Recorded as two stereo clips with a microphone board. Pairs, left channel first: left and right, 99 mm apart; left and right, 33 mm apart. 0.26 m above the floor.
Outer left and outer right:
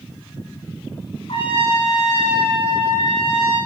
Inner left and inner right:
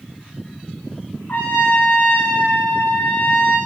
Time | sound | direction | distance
1.3 | a trumpet | 60° left (ahead or behind) | 6 m